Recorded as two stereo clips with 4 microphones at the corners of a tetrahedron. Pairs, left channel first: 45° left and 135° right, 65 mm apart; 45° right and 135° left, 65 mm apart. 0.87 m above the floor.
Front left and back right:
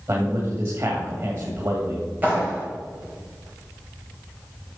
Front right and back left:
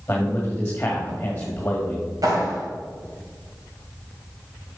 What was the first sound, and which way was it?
A man speaking, 105° right.